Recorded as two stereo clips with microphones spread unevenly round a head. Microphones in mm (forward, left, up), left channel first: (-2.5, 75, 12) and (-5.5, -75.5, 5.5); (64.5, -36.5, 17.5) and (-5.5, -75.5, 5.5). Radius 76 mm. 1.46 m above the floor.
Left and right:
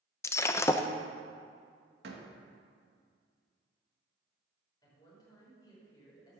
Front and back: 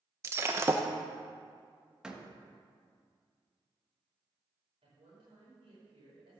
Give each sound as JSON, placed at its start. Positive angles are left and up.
{"t": 0.2, "sound": "breaking glass", "azimuth_deg": 150, "distance_m": 0.6}
{"t": 2.0, "sound": "a door slam", "azimuth_deg": -65, "distance_m": 1.6}
{"t": 4.8, "sound": "a woman speaking", "azimuth_deg": 155, "distance_m": 5.5}